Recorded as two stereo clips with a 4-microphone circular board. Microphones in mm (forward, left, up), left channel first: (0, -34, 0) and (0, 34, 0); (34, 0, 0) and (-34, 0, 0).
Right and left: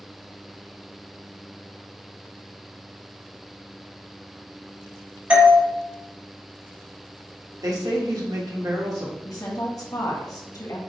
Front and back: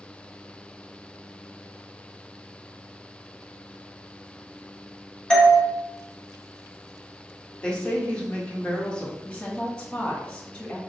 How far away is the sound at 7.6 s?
About 1.3 m.